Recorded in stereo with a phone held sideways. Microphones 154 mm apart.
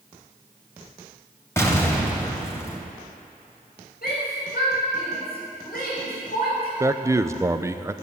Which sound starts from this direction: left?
A shout, at 4.0 s.